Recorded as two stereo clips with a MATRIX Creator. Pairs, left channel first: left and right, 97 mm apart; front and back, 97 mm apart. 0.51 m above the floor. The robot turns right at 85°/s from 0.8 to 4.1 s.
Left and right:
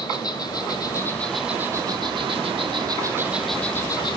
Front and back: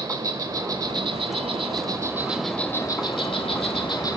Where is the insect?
130° left, 1.2 m; by 4.2 s 50° left, 1.2 m.